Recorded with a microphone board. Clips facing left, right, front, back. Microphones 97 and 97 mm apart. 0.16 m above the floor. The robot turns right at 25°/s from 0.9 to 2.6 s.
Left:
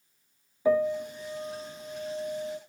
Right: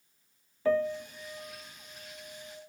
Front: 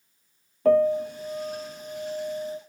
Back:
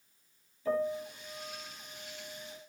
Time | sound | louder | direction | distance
0.7 | a piano | left 3 dB, front 13 dB | 15° left | 1.8 m